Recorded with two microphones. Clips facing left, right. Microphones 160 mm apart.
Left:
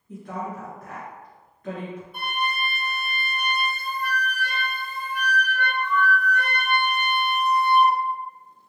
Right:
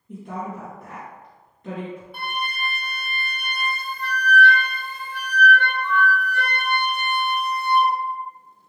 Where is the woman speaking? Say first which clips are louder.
Right 1 dB; 25° right (ahead or behind), 1.9 m.